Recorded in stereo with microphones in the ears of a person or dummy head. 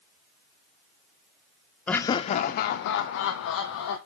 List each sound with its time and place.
1.9 s laughter: 10° left (ahead or behind), 0.5 m; by 4.0 s 85° left, 1.3 m